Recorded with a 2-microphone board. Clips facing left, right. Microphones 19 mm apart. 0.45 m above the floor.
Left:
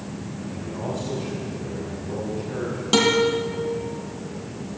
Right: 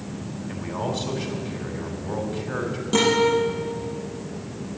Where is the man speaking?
50° right (ahead or behind), 3 m.